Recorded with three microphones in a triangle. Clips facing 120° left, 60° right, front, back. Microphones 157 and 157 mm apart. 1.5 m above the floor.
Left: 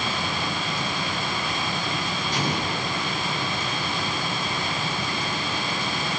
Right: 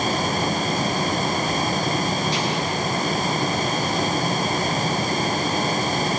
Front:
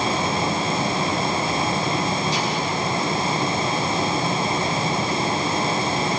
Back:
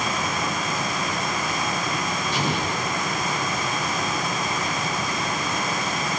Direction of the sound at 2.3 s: 150° left.